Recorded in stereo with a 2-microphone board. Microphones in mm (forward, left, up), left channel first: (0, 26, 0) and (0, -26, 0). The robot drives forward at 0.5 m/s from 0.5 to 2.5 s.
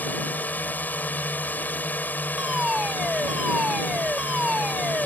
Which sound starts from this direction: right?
A fire alarm, at 2.4 s.